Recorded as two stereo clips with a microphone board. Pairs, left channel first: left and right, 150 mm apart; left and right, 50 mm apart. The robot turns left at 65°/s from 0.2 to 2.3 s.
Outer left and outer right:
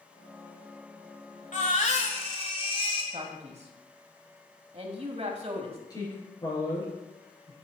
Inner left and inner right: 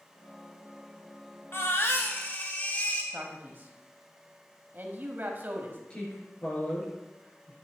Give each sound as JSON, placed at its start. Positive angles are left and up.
{"t": 1.5, "sound": "a baby crying", "azimuth_deg": 100, "distance_m": 1.5}
{"t": 3.1, "sound": "a man speaking", "side_deg": -45, "distance_m": 1.4}
{"t": 5.9, "sound": "a woman speaking", "side_deg": 25, "distance_m": 4.5}